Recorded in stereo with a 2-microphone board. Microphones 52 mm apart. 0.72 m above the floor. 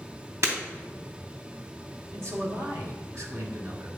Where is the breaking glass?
60° right (ahead or behind), 3 m.